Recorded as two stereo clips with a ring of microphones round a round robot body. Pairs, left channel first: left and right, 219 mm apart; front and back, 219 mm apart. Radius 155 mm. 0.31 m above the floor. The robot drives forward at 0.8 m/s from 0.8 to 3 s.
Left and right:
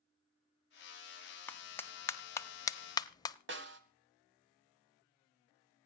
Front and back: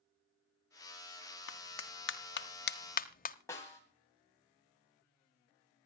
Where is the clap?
10° left, 2 m; by 3.4 s 25° left, 1.1 m.